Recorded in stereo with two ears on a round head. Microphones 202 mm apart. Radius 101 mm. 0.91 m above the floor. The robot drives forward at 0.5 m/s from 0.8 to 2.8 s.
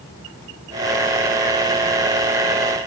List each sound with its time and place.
Only background noise.